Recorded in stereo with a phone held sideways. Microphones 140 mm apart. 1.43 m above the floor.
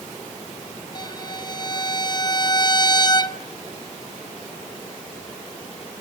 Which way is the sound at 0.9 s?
30° left (ahead or behind).